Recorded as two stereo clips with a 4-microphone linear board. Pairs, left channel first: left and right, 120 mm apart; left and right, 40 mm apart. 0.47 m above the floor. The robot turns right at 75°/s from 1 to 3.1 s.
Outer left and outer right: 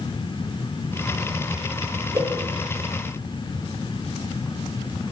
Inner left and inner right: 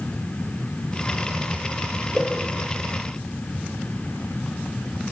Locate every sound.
2.1 s a whoosh: 30° right (ahead or behind), 5.5 m; by 2.3 s 20° right (ahead or behind), 5.5 m